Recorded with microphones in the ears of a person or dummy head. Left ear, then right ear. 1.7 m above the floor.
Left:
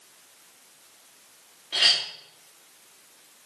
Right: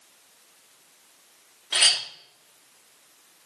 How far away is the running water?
I don't hear running water.